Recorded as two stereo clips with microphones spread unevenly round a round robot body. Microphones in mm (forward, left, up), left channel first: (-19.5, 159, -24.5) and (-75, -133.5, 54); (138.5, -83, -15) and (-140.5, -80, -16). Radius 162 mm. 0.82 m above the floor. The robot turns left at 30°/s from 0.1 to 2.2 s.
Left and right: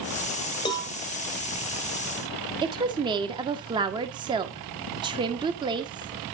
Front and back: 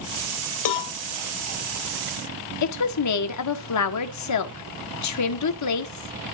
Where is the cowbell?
Straight ahead, 1.3 m; by 0.9 s 10° right, 1.3 m.